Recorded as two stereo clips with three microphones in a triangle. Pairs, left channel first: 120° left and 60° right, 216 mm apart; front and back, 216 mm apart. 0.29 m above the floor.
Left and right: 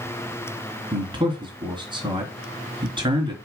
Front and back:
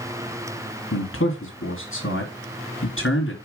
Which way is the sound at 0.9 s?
5° left.